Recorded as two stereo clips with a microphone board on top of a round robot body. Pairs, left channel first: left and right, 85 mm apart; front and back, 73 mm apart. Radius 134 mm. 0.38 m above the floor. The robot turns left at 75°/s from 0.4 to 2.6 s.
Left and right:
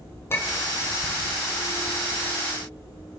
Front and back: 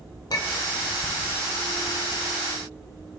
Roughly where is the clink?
Ahead left.